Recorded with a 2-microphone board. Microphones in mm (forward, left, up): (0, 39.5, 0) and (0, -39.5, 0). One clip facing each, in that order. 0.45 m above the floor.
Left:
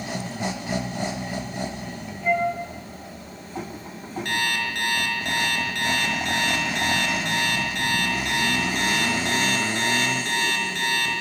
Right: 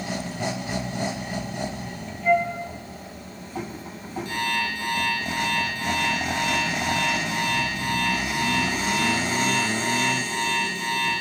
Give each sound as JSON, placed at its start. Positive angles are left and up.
{"t": 2.2, "sound": "a flute", "side_deg": 5, "distance_m": 5.0}
{"t": 4.2, "sound": "an alarm clock", "side_deg": 75, "distance_m": 5.0}